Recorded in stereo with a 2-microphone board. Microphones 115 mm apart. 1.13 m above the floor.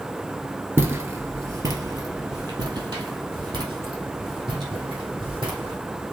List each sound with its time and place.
0.8 s footsteps: 20° right (ahead or behind), 1.2 m; by 5.8 s 45° right (ahead or behind), 3.5 m